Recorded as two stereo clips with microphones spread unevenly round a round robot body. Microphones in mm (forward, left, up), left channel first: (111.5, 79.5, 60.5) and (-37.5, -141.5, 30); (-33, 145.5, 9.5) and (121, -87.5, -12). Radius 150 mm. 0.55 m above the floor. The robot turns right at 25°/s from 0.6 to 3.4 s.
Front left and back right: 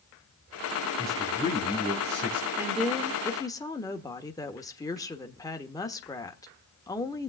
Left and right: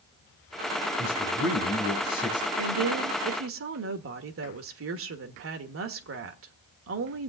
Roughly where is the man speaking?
Behind.